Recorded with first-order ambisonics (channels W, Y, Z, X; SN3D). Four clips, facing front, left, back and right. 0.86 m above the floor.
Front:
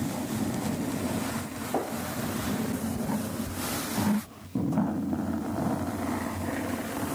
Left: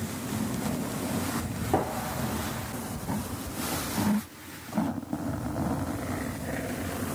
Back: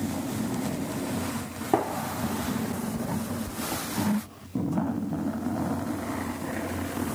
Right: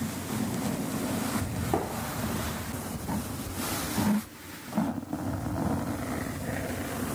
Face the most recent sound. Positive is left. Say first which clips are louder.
# left 3 dB, back 5 dB
turn(degrees=175)